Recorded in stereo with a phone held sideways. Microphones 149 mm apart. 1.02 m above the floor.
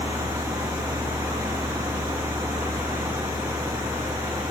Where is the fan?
20° right (ahead or behind), 1.8 m.